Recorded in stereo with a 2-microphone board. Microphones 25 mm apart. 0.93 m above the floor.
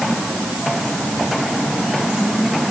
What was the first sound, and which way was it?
Only background noise.